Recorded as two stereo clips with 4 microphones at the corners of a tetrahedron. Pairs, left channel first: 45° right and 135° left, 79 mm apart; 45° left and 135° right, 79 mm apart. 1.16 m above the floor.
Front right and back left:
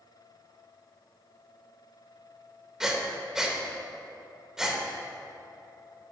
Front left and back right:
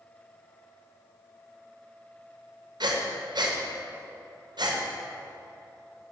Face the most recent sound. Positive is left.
turn(degrees=-145)